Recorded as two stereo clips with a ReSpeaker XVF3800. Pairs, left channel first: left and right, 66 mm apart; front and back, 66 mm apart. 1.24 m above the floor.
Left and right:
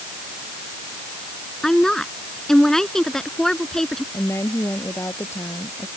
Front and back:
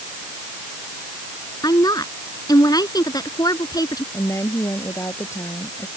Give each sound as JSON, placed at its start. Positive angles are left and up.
{"t": 1.6, "sound": "a woman speaking", "azimuth_deg": 5}
{"t": 4.1, "sound": "a woman speaking", "azimuth_deg": 40}